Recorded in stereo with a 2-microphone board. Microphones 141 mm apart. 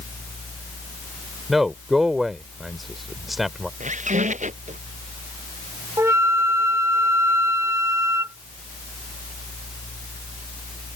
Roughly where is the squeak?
Right.